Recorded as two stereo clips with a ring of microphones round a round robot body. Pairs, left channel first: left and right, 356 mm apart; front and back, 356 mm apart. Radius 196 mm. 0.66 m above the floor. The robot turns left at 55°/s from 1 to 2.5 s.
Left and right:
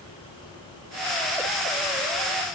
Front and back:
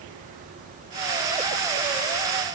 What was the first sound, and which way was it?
Only background noise.